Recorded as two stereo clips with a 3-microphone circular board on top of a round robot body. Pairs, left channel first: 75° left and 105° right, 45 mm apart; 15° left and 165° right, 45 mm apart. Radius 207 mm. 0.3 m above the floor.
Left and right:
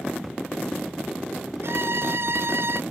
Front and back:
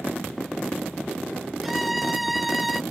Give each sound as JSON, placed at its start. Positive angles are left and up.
{"t": 1.6, "sound": "a violin", "azimuth_deg": -75}